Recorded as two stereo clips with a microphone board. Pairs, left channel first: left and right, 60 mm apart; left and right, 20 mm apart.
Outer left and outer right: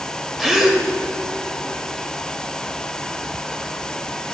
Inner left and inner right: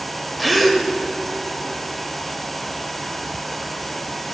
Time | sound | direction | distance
0.4 | a gasp | 5° right (ahead or behind) | 0.9 m